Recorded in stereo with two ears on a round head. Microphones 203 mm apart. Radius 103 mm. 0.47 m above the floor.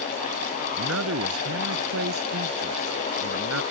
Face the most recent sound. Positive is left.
turn(degrees=-60)  # may be behind; listen again after turning